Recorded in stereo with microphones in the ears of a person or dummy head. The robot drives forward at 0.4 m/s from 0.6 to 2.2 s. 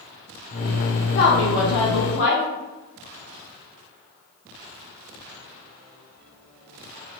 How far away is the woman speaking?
About 0.8 m.